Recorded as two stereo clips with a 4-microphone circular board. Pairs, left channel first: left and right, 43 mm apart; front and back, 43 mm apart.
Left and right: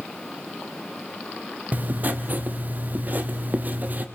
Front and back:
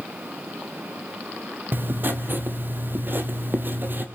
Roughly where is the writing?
Behind right.